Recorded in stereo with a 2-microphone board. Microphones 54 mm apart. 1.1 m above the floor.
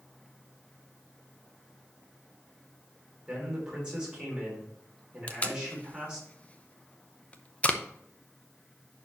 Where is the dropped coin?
I don't hear a dropped coin.